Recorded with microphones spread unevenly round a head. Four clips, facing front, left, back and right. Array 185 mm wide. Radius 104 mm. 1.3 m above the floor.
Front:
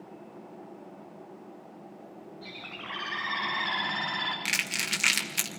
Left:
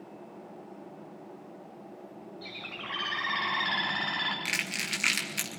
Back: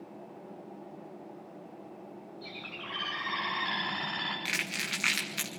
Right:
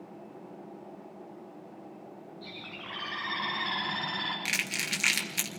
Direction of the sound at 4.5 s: 30° right.